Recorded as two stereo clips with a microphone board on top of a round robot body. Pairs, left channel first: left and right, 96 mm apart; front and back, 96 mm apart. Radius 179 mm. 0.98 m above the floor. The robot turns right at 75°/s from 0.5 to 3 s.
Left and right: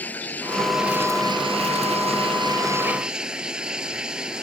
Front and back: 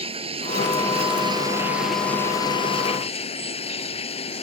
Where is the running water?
165° left; by 4.4 s 10° right.